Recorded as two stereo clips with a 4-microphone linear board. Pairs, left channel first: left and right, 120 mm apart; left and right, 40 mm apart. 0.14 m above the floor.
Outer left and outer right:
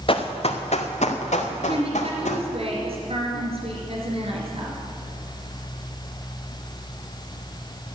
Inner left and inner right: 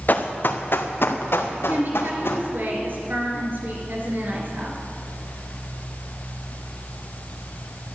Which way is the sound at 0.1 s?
50° left (ahead or behind).